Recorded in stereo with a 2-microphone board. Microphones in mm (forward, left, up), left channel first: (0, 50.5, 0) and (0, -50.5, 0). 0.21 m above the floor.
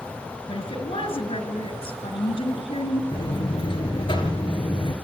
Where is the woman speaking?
65° left (ahead or behind), 3.5 m.